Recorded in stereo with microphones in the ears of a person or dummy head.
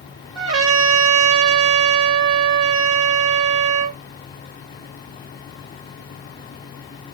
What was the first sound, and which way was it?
A trumpet, 80° right.